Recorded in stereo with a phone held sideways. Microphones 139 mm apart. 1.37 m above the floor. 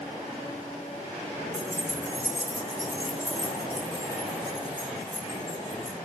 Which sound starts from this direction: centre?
Keys jangling, at 1.5 s.